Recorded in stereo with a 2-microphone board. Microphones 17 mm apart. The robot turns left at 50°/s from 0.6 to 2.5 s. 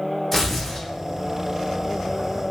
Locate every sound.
0.3 s tearing paper: 10° left (ahead or behind), 0.8 m; by 0.9 s 25° left (ahead or behind), 0.8 m